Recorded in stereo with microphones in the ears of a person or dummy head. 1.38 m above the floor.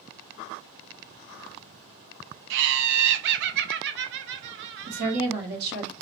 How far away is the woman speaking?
About 1.3 m.